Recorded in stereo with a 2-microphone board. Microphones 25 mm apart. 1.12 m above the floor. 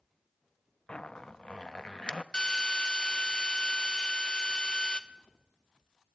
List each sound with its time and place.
0.9 s a zipper: 35° left (ahead or behind), 0.7 m
2.3 s a drill: 35° left (ahead or behind), 1.0 m